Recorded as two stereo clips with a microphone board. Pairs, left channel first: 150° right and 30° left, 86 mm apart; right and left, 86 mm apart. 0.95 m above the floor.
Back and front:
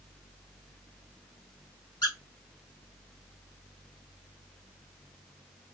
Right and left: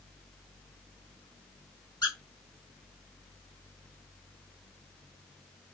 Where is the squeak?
115° right, 1.7 m.